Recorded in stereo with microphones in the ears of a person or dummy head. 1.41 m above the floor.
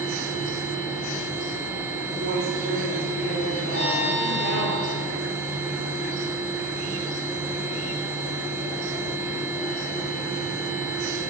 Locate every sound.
0.0 s a machine running: 10° right (ahead or behind), 1.4 m
2.1 s a woman speaking: 65° right (ahead or behind), 3.5 m
3.7 s a violin: 40° left (ahead or behind), 3 m